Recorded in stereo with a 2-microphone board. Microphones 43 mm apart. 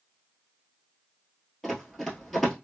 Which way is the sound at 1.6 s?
5° left (ahead or behind).